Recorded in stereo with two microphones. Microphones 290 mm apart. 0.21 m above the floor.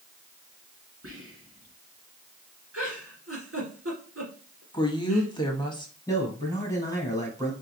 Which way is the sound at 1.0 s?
50° right (ahead or behind).